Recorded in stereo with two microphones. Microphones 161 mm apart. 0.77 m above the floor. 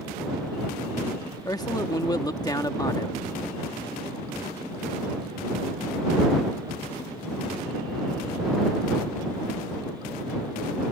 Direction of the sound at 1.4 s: 25° left (ahead or behind).